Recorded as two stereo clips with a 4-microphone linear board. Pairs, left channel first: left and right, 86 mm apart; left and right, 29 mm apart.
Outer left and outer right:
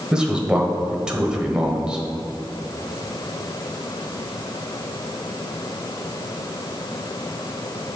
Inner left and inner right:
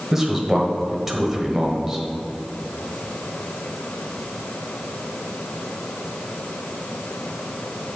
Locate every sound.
0.1 s a man speaking: 10° right (ahead or behind), 1.3 m